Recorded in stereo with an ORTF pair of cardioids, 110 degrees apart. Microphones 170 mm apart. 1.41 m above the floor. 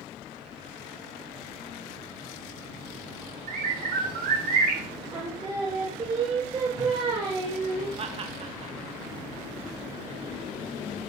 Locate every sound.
3.5 s a bird: 60° right, 2.5 m
5.1 s singing: 30° right, 3 m
8.0 s laughter: 40° right, 1.1 m